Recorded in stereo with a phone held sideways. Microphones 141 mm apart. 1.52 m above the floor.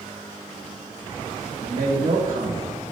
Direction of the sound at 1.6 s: 85° right.